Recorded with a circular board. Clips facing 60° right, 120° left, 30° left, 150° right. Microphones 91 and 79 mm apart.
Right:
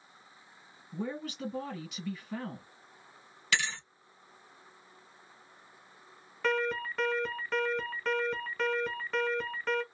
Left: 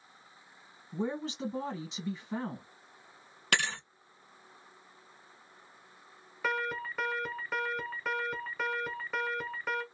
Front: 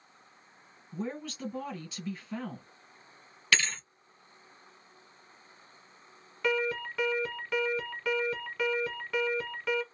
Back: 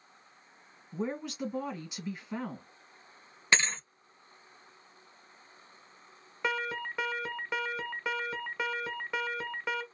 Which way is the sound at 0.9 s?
155° left.